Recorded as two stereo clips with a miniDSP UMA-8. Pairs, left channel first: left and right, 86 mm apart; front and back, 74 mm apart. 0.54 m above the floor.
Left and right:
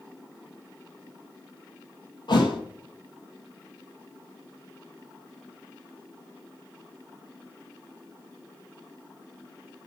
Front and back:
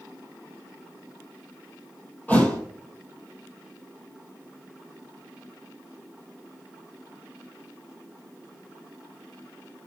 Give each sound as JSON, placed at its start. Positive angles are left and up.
{"t": 2.3, "sound": "a thud", "azimuth_deg": 70, "distance_m": 1.7}